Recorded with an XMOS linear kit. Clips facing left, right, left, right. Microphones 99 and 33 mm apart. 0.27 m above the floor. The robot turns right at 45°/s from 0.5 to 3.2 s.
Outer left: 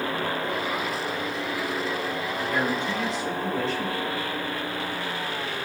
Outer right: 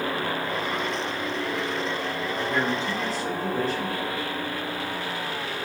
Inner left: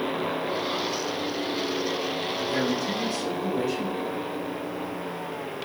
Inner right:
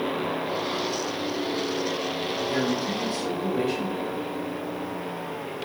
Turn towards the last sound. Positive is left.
turn(degrees=-130)